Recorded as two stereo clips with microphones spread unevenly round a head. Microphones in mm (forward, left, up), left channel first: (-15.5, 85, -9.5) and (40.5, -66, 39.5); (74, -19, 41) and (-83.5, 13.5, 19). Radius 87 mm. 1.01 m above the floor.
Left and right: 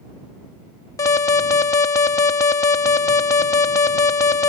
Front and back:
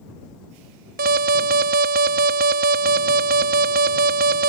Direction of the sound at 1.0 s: 170° left.